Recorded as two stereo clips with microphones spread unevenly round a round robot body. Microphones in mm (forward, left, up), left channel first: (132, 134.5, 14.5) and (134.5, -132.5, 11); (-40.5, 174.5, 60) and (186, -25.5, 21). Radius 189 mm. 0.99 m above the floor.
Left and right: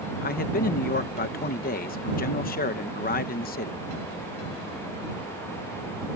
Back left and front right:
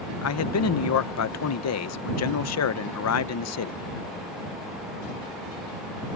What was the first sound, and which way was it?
A man speaking, 135° left.